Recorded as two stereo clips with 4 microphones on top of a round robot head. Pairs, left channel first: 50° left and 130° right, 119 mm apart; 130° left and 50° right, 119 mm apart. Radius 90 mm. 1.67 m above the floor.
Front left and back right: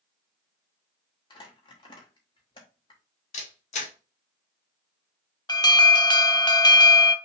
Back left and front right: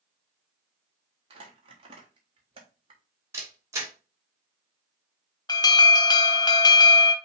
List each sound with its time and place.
1.3 s crumpling: straight ahead, 1.2 m
3.3 s a camera shutter: 20° left, 1.4 m
5.5 s an alarm: 90° left, 0.8 m